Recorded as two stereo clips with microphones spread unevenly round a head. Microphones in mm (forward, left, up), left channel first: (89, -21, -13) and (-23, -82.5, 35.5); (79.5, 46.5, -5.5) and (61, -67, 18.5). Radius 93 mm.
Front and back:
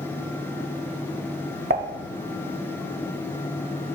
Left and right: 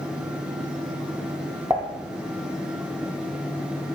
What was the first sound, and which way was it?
Dishes clattering, 175° right.